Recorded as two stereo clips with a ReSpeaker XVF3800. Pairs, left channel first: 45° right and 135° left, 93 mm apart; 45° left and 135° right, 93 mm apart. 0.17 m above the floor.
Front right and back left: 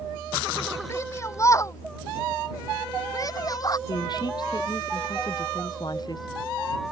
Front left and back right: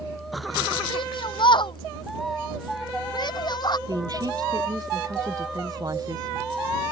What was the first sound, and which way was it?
A shout, 15° left.